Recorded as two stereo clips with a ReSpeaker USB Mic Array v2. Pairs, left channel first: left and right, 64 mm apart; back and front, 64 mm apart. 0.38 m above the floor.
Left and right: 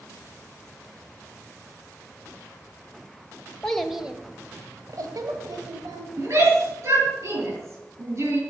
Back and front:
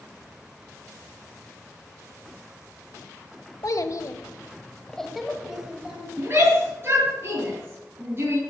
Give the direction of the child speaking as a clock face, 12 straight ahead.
6 o'clock.